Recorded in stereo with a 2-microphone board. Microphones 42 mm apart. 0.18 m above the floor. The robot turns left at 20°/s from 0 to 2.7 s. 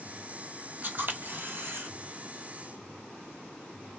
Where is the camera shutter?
45° right (ahead or behind), 1.2 m; by 1.9 s 65° right (ahead or behind), 1.2 m.